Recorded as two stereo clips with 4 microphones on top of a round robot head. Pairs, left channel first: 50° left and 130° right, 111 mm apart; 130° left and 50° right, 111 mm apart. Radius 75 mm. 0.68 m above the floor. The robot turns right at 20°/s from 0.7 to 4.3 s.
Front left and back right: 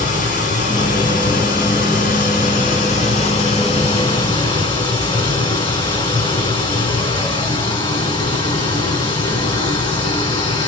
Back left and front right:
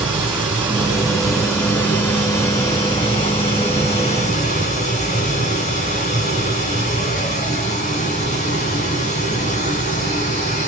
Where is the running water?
30° left, 1.9 m; by 10.7 s 100° left, 1.9 m.